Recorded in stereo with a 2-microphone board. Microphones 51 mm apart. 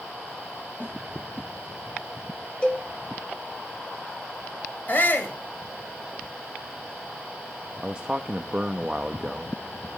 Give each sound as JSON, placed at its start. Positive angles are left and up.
{"t": 0.8, "sound": "a snare drum", "side_deg": 45, "distance_m": 8.5}
{"t": 2.6, "sound": "a cowbell", "side_deg": 25, "distance_m": 2.0}
{"t": 4.9, "sound": "a shout", "side_deg": 40, "distance_m": 4.5}
{"t": 7.8, "sound": "a man speaking", "side_deg": -20, "distance_m": 0.7}